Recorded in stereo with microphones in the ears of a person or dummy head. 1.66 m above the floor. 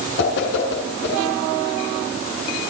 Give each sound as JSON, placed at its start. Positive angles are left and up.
{"t": 0.2, "sound": "a whoosh", "side_deg": 70, "distance_m": 7.5}